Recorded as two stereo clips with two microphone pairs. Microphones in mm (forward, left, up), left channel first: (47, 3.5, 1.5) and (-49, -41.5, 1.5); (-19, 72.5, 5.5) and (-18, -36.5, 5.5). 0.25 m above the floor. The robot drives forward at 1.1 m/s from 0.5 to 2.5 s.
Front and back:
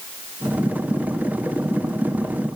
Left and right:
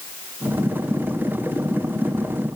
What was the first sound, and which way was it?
Only background noise.